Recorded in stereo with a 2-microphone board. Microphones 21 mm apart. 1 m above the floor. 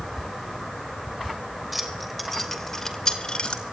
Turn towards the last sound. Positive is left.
turn(degrees=50)  # may be behind; listen again after turning